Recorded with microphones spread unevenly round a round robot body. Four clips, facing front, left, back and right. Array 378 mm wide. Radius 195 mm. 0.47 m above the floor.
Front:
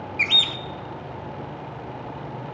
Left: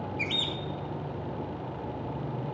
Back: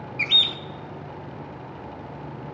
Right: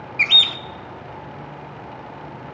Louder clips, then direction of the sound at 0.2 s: Right 6 dB, front 2 dB; 70° right.